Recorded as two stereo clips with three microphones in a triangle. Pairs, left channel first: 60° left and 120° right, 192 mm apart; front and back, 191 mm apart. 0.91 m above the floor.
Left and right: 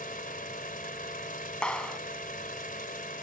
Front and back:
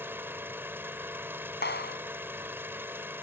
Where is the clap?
25° right.